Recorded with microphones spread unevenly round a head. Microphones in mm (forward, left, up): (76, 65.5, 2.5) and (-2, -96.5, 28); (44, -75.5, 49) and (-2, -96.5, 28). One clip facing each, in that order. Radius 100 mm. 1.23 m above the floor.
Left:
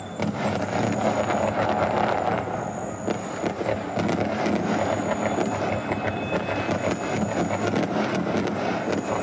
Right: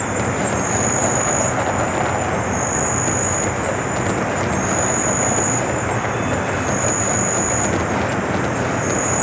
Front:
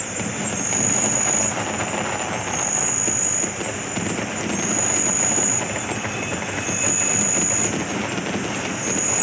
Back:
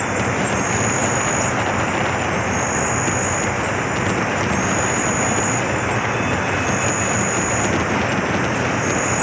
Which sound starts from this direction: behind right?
An insect, at 0.0 s.